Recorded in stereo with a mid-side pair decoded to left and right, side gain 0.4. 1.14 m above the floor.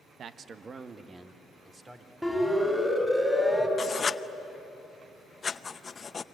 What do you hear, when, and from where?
0.2 s a man speaking: 65° right, 1.0 m; by 3.2 s 25° right, 5 m
2.2 s a siren: 5° right, 5.5 m
3.8 s writing: 40° left, 0.7 m